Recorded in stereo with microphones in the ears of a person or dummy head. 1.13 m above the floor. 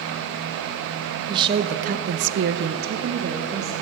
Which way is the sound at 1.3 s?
20° right (ahead or behind).